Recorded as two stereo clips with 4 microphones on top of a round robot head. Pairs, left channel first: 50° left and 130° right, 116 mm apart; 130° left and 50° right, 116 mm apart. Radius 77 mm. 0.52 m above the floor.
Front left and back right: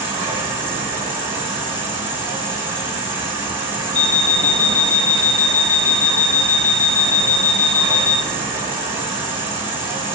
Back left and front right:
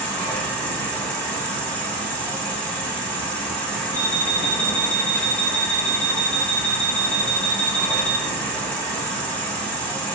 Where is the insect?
165° right, 1.7 m.